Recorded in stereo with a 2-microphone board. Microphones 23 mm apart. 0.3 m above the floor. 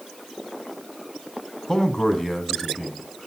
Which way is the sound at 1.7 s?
20° left (ahead or behind).